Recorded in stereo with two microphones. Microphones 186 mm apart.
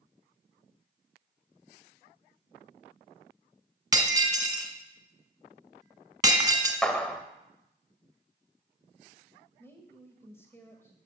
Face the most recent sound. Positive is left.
turn(degrees=15)  # may be behind; listen again after turning